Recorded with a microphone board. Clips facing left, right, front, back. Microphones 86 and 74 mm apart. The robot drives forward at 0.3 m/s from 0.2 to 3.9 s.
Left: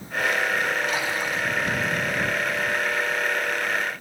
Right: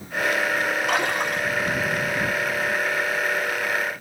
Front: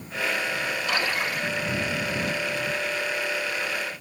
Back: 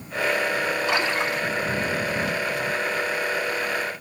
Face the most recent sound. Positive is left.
turn(degrees=-135)